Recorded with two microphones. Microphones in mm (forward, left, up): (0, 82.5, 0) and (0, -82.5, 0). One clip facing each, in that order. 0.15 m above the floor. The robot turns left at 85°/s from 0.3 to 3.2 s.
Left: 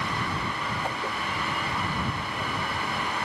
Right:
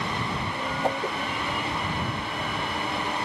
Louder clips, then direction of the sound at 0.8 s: Right 5 dB; 40° right (ahead or behind).